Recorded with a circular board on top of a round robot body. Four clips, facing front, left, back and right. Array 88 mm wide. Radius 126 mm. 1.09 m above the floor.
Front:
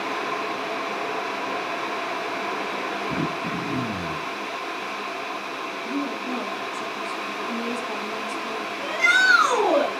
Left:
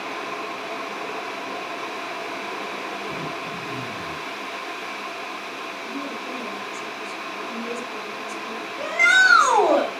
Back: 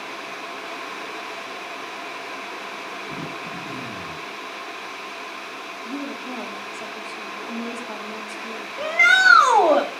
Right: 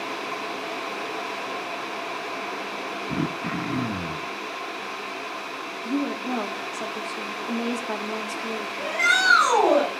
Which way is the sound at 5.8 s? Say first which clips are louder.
Right 8 dB, front 3 dB; 90° right.